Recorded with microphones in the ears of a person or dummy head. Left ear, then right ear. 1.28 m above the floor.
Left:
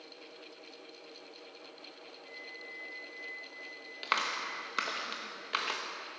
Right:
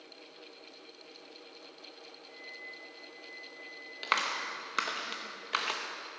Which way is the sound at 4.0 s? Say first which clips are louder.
Right 1 dB; centre (ahead or behind).